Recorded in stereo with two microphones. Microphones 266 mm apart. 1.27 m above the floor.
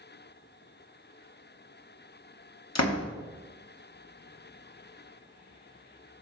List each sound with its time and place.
2.8 s a door slam: 75° left (ahead or behind), 0.9 m